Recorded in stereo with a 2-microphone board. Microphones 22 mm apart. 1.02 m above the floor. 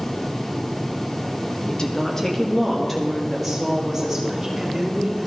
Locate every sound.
1.7 s a woman speaking: 35° left (ahead or behind), 0.9 m; by 5.3 s 15° right (ahead or behind), 2.5 m